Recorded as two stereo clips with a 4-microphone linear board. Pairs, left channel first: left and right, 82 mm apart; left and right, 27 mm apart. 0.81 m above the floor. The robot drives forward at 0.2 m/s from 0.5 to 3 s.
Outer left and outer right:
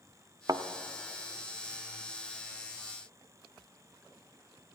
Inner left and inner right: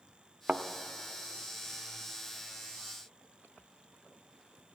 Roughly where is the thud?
Right.